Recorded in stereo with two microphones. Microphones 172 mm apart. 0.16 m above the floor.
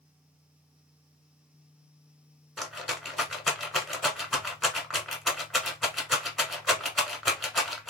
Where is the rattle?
Centre (ahead or behind), 0.9 m.